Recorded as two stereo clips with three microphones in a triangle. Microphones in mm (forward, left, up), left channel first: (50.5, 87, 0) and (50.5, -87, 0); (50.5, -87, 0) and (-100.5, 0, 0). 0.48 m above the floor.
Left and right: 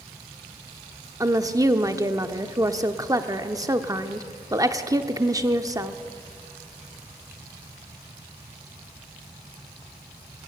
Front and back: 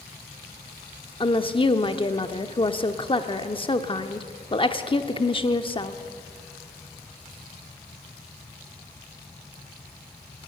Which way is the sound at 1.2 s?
40° right.